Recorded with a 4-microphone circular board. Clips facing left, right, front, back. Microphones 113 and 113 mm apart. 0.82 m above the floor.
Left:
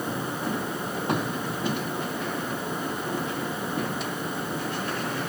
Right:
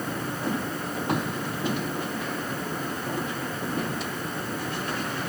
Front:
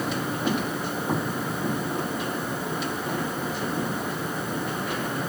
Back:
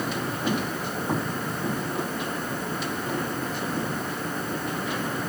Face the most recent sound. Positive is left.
No sound to turn to.